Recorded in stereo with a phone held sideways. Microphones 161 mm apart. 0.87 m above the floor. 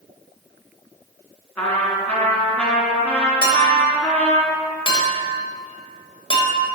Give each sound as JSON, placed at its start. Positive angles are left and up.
{"t": 1.6, "sound": "a trumpet", "side_deg": 10, "distance_m": 3.5}
{"t": 3.4, "sound": "a clink", "side_deg": 30, "distance_m": 2.5}